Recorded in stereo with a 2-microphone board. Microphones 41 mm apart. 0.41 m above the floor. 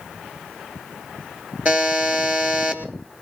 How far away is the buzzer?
About 2 m.